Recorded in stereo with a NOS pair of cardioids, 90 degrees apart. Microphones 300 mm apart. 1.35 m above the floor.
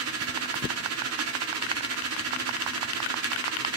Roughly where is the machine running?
Ahead right.